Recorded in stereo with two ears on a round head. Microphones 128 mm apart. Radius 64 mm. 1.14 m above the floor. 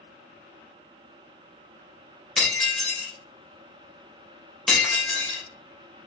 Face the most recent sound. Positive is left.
turn(degrees=0)  # may be behind; listen again after turning